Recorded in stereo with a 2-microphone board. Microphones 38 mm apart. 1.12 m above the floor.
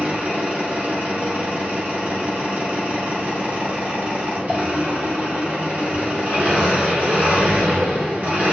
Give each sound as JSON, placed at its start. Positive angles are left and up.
{"t": 0.0, "sound": "an engine running", "side_deg": -40, "distance_m": 0.9}